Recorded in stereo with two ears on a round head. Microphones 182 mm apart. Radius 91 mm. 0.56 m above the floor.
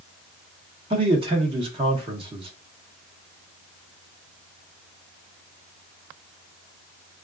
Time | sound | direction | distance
0.9 | a man speaking | 30° right (ahead or behind) | 0.9 m